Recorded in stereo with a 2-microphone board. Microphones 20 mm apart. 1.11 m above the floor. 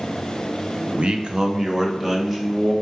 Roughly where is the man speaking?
Right.